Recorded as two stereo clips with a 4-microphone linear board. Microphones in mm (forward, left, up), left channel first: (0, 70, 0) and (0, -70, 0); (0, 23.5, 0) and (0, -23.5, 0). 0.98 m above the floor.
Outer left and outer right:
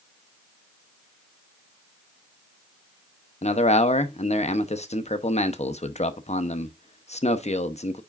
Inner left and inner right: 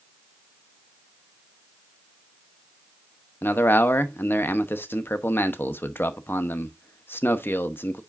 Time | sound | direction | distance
3.4 | a man speaking | 50° left (ahead or behind) | 0.8 m